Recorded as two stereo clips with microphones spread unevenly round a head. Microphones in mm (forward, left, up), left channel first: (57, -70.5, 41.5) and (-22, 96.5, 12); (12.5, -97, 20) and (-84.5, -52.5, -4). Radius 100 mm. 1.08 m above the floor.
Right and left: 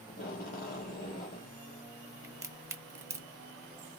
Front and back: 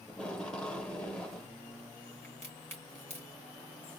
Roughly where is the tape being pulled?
Right.